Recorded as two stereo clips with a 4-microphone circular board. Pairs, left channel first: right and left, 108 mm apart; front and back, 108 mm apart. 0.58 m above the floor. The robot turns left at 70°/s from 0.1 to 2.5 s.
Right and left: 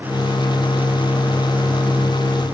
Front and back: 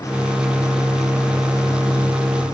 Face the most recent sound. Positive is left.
No sound to turn to.